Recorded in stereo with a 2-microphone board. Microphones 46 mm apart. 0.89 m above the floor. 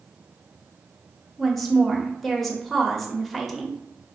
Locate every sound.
1.4 s a woman speaking: 5° left (ahead or behind), 0.8 m